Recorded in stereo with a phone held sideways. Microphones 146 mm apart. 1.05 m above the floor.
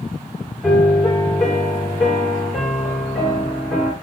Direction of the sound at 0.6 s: 5° left (ahead or behind).